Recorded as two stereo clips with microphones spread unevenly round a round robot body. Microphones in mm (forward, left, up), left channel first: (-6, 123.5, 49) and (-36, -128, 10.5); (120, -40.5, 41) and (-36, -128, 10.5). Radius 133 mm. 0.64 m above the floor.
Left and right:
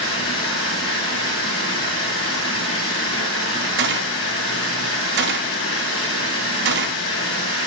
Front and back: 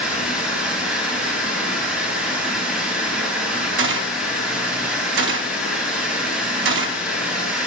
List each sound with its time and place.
0.0 s running water: 125° left, 2.5 m
3.8 s a gunshot: 145° right, 0.7 m